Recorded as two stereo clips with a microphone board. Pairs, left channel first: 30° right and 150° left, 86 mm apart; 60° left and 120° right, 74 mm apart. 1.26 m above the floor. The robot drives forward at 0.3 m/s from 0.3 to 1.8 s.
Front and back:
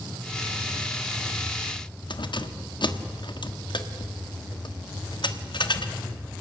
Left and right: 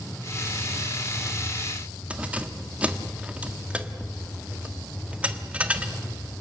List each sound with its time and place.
2.1 s keys jangling: 50° right, 1.3 m